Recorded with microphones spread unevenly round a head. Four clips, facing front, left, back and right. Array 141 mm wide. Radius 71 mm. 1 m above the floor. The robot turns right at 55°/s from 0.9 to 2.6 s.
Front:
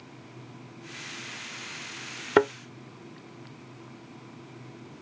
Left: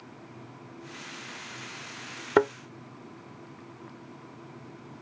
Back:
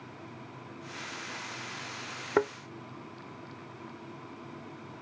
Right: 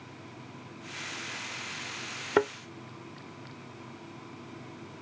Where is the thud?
5° left; by 2.5 s 15° left.